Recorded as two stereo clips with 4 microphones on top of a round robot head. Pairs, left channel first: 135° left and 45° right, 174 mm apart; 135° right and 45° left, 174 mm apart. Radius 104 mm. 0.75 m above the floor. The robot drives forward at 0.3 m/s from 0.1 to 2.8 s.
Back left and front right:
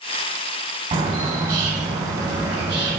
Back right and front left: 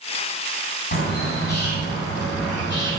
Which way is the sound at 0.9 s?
105° right.